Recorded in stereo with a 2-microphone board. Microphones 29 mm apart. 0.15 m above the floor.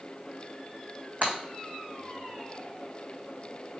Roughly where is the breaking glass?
Right.